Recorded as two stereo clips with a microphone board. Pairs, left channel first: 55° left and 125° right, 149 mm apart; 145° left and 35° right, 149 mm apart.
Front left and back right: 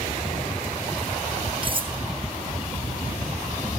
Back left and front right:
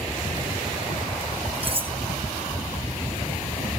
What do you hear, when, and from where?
1.6 s cutlery clinking: 75° right, 1.2 m